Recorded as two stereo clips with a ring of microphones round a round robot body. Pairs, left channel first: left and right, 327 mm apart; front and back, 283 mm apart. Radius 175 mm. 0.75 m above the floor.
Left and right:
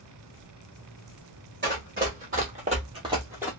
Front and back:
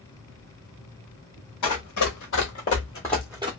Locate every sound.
1.6 s running footsteps: 30° right, 1.3 m; by 3.5 s 165° right, 0.7 m